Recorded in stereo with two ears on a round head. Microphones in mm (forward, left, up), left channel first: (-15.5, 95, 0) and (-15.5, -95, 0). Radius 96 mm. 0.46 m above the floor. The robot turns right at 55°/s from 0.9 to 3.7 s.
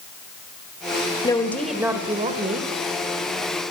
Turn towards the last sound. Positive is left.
turn(degrees=-70)